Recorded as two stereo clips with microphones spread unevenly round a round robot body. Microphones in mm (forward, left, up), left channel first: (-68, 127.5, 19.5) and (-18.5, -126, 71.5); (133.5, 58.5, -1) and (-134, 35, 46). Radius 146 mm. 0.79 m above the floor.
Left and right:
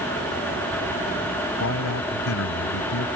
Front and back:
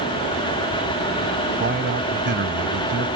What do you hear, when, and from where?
1.6 s a man speaking: 135° left